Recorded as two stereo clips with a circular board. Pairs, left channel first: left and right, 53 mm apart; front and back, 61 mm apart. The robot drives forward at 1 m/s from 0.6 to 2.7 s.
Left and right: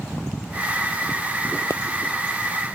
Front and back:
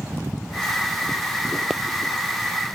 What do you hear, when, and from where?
1.7 s a pop: 95° left; by 1.8 s 100° left